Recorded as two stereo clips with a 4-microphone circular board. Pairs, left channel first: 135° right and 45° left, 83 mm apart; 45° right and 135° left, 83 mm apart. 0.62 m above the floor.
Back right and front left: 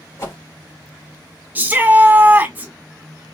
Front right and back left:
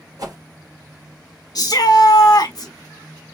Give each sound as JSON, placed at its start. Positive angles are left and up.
{"t": 0.2, "sound": "a whoosh", "azimuth_deg": 175, "distance_m": 3.5}
{"t": 1.6, "sound": "a shout", "azimuth_deg": -20, "distance_m": 1.4}